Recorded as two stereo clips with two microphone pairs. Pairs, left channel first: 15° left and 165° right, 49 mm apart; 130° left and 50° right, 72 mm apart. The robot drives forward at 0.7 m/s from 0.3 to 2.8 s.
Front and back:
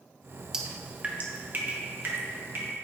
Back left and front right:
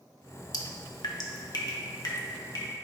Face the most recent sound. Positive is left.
turn(degrees=160)